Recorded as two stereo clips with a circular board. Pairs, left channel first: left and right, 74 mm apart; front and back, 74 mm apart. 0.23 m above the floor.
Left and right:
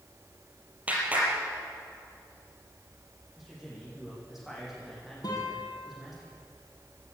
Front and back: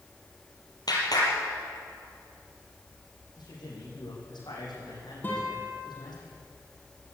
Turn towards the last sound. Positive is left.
turn(degrees=65)